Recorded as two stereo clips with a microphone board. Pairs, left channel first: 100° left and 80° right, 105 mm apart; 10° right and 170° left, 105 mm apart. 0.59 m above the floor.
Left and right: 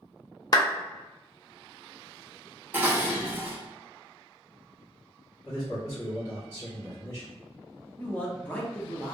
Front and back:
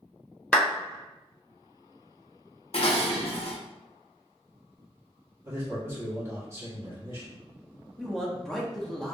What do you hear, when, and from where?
0.5 s a clap: 65° left, 0.6 m
2.7 s dishes clattering: 10° right, 0.5 m
5.5 s a man speaking: 125° left, 1.4 m
8.0 s a man speaking: 65° left, 0.5 m